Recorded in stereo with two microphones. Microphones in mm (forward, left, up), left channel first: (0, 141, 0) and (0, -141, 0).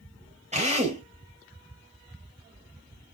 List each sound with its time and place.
0.5 s a drill: 25° right (ahead or behind), 3 m